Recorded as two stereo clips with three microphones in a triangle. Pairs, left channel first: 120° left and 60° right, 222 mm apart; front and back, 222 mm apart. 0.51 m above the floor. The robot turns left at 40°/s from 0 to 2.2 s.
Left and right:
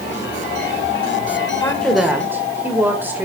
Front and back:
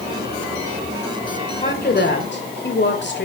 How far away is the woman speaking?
About 2 m.